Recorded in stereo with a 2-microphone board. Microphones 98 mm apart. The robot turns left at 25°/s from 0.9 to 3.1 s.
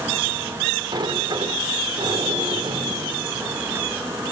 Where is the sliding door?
65° right, 1.6 m; by 4.3 s 120° right, 1.6 m.